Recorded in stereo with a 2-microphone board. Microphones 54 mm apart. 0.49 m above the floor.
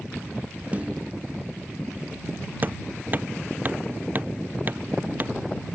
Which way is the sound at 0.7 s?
25° right (ahead or behind).